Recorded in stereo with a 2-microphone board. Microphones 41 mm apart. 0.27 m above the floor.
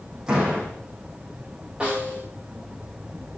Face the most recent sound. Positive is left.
turn(degrees=-20)  # may be behind; listen again after turning